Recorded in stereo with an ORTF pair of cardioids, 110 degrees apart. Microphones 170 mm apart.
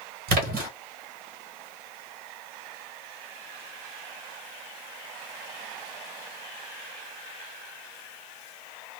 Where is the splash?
65° right, 1.3 m.